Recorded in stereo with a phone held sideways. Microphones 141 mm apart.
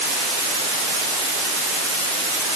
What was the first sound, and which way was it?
Only background noise.